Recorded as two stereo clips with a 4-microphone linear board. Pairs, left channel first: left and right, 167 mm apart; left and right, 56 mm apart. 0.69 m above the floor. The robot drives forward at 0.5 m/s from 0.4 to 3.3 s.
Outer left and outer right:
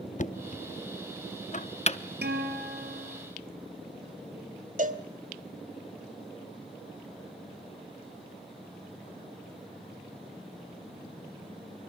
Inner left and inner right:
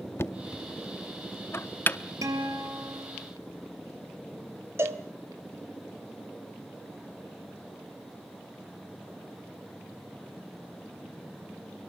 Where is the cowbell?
50° right (ahead or behind), 1.5 m.